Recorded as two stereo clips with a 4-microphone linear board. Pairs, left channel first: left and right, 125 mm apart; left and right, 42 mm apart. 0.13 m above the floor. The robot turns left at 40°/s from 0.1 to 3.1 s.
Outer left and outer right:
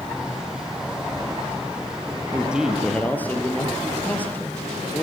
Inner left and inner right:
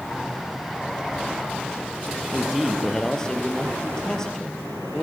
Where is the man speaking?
165° right, 2.5 m; by 5.0 s 165° left, 2.5 m.